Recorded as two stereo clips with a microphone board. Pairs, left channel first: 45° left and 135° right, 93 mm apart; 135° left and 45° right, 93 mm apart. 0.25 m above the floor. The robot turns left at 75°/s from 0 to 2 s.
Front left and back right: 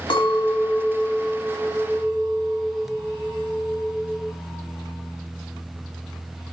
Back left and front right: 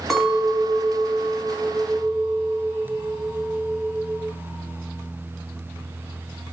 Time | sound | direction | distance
0.1 | a clink | 45° left | 1.0 m